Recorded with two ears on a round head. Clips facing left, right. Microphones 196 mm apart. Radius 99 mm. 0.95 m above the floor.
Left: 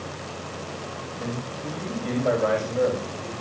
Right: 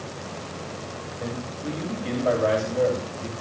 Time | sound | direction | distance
1.2 | a man speaking | centre (ahead or behind) | 6.5 m